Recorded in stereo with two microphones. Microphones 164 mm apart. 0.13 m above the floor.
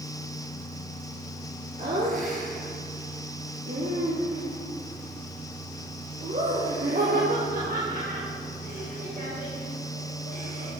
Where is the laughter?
50° right (ahead or behind), 2 m.